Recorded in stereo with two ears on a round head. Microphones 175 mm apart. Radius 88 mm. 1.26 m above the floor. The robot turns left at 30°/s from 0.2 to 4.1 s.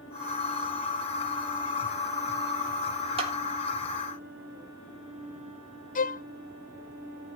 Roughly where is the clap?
Right.